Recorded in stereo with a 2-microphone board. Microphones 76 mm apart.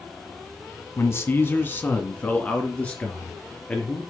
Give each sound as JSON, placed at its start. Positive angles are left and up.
{"t": 1.0, "sound": "a man speaking", "side_deg": 35, "distance_m": 1.6}